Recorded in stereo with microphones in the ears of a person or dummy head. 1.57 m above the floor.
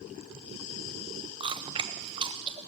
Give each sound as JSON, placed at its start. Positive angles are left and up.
{"t": 1.4, "sound": "chewing", "side_deg": -25, "distance_m": 0.6}